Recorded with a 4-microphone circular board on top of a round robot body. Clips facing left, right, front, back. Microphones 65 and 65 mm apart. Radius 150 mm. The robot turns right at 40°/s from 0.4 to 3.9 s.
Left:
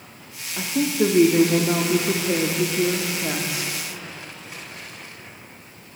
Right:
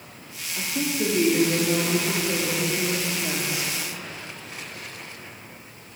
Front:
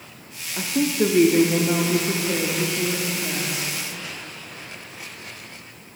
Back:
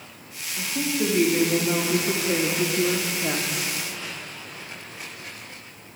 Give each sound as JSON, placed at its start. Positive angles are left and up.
{"t": 0.6, "sound": "a woman speaking", "azimuth_deg": 35, "distance_m": 1.1}